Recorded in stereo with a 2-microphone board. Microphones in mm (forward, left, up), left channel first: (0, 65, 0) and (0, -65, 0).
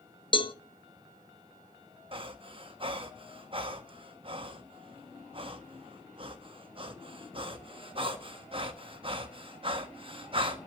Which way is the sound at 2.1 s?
40° right (ahead or behind).